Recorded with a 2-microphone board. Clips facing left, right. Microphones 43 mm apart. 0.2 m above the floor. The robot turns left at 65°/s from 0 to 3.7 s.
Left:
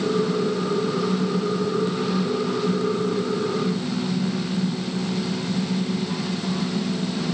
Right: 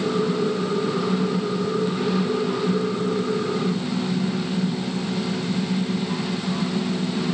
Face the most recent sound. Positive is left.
No sound to turn to.